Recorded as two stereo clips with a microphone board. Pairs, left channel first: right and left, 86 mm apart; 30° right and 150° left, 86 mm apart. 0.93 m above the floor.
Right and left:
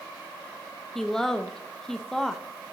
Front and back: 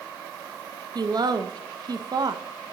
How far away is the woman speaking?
About 0.5 m.